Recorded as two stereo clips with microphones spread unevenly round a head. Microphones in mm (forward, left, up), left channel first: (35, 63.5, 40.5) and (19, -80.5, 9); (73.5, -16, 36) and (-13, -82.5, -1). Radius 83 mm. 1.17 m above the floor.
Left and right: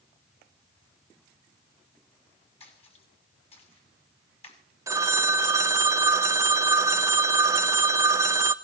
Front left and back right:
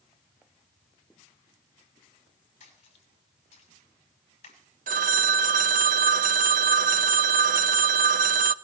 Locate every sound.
2.6 s a splash: 35° left, 6 m
4.9 s a phone ringing: 175° right, 0.6 m